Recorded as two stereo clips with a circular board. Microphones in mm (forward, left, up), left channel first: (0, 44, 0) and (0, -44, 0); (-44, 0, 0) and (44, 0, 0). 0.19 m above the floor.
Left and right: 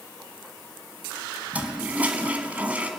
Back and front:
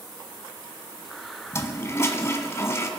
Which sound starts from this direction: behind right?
A toilet flushing, at 1.5 s.